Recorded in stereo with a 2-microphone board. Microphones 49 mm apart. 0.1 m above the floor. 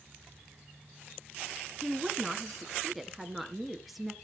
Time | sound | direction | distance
1.8 | a woman speaking | centre (ahead or behind) | 1.3 m